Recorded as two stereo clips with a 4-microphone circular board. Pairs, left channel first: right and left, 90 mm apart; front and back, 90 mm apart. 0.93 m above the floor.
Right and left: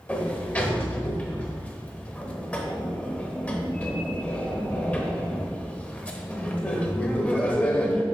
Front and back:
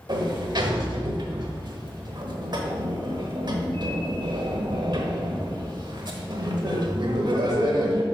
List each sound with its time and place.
0.1 s a sliding door: 160° right, 1.0 m